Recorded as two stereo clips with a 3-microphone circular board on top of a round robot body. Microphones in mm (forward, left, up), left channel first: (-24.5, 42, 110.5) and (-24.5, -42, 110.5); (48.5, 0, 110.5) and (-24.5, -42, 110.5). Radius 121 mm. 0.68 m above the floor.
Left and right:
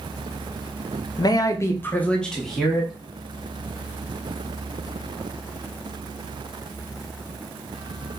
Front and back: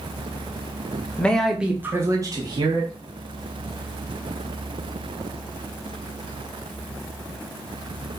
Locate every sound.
1.2 s a man speaking: 100° left, 0.8 m; by 2.9 s 175° right, 1.3 m